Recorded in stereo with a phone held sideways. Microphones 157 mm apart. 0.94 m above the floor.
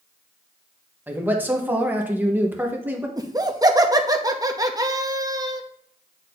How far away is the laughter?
About 0.8 m.